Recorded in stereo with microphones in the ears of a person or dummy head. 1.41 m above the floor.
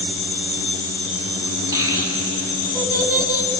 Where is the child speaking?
20° right (ahead or behind), 6 m; by 3.5 s 15° right (ahead or behind), 5.5 m.